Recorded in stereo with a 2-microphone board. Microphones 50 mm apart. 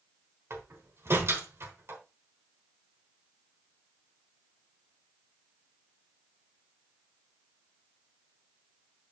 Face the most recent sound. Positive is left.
turn(degrees=-60)  # may be behind; listen again after turning